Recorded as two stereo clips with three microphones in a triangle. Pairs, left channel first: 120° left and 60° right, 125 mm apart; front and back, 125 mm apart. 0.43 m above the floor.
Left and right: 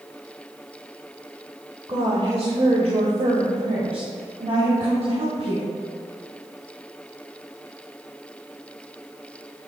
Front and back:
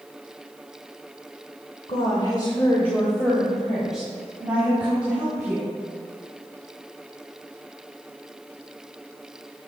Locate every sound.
1.9 s a woman speaking: 15° right, 1.1 m; by 5.7 s 105° right, 3.5 m